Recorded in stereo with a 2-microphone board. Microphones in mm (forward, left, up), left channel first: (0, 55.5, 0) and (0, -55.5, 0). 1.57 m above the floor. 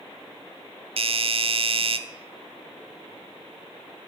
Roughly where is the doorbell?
Right.